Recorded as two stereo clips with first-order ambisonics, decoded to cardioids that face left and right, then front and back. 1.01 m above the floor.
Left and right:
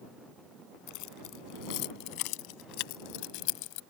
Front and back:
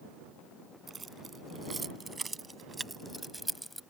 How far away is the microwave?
No microwave in this recording.